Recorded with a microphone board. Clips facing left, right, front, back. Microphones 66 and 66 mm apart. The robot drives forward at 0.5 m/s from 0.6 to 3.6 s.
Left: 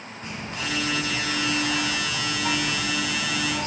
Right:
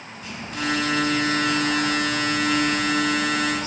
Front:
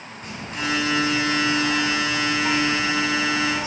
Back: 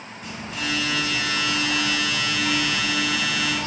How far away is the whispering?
About 2.5 m.